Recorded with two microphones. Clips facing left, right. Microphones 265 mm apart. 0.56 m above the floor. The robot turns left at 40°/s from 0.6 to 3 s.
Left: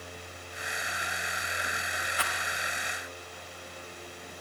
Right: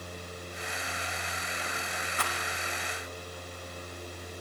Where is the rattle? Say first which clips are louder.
Right 2 dB; 50° right (ahead or behind), 6 m; by 2.4 s 60° right (ahead or behind), 6 m.